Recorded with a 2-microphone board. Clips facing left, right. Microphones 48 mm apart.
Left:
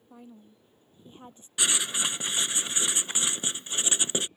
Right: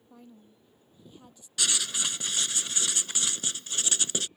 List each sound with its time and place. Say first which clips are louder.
0.1 s a woman speaking: left 3 dB; 15° left (ahead or behind); by 1.5 s 35° left (ahead or behind)
1.6 s writing: left 2 dB; 20° left (ahead or behind)